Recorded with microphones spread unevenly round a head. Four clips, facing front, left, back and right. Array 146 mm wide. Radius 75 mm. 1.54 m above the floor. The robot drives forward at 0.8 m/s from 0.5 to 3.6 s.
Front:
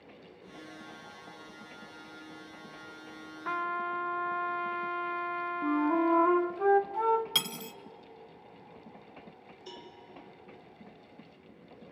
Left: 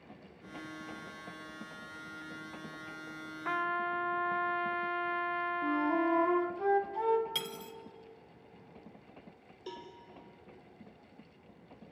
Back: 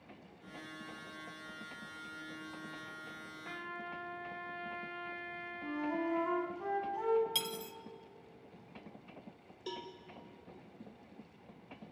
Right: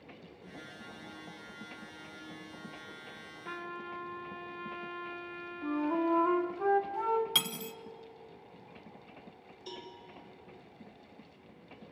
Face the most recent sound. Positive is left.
turn(degrees=145)